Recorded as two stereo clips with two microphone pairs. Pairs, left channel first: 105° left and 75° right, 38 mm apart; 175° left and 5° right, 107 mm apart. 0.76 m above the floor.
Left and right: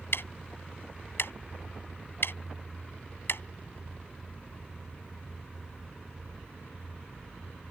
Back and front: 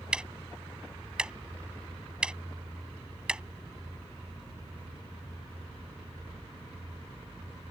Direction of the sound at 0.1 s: 80° left.